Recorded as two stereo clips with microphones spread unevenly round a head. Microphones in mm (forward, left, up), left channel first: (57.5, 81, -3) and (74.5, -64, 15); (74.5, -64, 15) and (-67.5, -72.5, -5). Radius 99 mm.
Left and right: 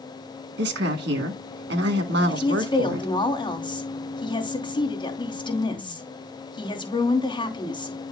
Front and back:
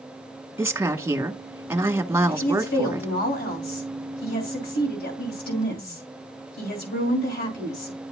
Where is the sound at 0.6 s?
105° right, 1.7 m.